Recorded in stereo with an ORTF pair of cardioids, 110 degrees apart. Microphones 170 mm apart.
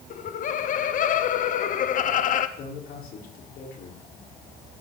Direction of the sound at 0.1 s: 50° left.